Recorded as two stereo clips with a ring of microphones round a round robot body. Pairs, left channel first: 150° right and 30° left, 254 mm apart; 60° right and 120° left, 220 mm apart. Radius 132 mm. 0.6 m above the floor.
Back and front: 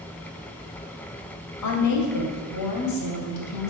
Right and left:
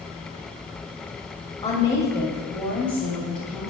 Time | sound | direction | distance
1.6 | a woman speaking | 135° right | 2 m